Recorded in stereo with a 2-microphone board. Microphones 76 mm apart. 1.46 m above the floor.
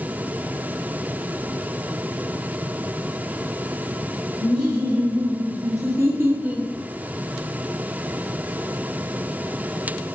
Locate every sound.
4.4 s laughter: 65° right (ahead or behind), 1.5 m; by 6.7 s 10° right (ahead or behind), 0.6 m